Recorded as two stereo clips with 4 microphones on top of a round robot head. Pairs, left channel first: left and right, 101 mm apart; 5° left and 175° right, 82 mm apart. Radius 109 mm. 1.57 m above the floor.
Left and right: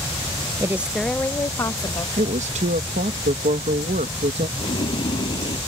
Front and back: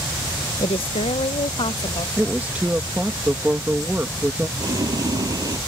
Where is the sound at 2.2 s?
95° right.